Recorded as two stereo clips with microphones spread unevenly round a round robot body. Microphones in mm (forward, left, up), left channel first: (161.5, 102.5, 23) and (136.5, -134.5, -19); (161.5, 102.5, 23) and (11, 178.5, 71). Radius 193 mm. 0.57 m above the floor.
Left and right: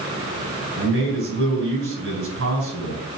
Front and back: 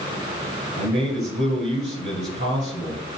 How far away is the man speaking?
About 3 m.